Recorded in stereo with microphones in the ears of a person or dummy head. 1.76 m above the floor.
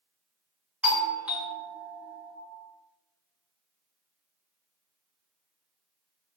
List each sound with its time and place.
0.8 s a doorbell: 10° right (ahead or behind), 0.8 m